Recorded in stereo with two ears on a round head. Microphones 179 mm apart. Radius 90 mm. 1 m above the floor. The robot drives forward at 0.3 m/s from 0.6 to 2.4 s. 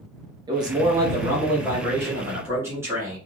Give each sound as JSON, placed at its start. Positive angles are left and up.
{"t": 0.5, "sound": "a man speaking", "side_deg": -20, "distance_m": 0.8}